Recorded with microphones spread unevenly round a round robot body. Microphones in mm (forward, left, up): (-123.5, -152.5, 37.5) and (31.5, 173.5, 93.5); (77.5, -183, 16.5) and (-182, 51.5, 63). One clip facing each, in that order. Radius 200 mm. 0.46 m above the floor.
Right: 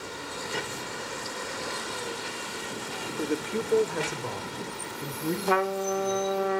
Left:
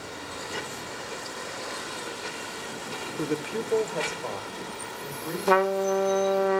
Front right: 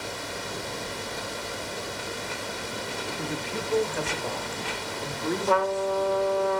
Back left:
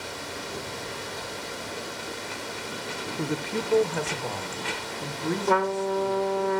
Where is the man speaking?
145° left, 1.0 m; by 6.5 s 165° right, 5.5 m.